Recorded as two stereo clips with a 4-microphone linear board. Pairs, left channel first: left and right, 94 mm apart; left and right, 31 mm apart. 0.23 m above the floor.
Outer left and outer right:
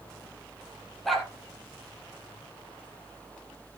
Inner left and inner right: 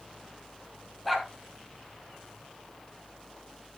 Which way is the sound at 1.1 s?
Centre (ahead or behind).